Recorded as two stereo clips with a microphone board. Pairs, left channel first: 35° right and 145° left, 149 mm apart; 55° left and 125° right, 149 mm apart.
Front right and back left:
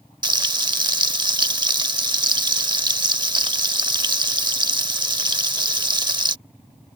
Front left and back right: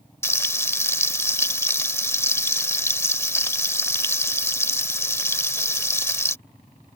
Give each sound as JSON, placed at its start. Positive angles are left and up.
{"t": 0.2, "sound": "frying", "azimuth_deg": 115}